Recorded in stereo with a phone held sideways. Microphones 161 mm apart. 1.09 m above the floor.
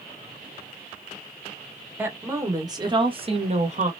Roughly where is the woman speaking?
Centre.